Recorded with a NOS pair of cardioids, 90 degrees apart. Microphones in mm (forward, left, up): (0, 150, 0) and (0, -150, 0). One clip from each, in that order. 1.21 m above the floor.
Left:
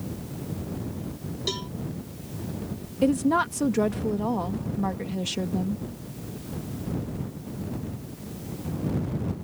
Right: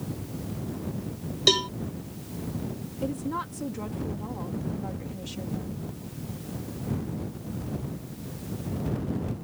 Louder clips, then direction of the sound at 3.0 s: Left 9 dB; 70° left.